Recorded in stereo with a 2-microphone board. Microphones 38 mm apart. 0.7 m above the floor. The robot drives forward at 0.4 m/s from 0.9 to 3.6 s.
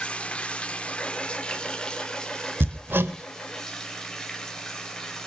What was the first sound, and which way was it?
Running water, 30° left (ahead or behind).